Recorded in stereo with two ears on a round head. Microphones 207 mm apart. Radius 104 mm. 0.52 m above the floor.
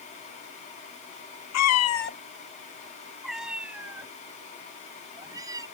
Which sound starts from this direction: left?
A cat meowing, at 1.5 s.